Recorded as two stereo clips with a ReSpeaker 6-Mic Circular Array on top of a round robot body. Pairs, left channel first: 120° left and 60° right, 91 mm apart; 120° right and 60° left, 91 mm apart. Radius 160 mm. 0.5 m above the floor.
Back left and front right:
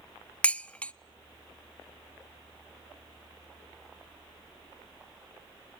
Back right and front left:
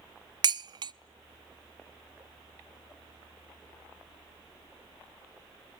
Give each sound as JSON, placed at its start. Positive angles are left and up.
{"t": 0.4, "sound": "dishes clattering", "azimuth_deg": 45, "distance_m": 0.6}